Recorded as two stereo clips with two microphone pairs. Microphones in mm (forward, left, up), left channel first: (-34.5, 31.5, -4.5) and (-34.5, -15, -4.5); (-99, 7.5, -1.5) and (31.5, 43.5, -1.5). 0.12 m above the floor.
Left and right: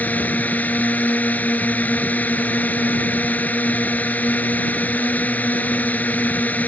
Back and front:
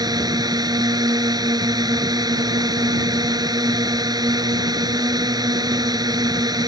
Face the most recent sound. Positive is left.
turn(degrees=60)